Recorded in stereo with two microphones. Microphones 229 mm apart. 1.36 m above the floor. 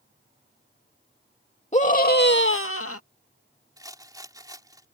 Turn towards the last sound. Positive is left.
turn(degrees=-15)  # may be behind; listen again after turning